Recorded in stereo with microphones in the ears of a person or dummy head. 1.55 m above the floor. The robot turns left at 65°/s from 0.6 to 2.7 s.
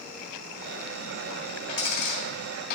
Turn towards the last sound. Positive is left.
turn(degrees=50)  # may be behind; listen again after turning